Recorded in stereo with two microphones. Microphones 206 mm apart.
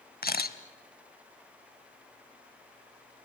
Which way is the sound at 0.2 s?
50° left (ahead or behind).